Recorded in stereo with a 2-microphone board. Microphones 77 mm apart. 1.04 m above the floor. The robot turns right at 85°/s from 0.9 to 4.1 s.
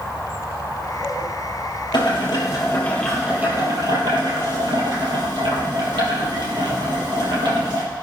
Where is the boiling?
80° left, 4.5 m; by 7.8 s 100° right, 4.5 m.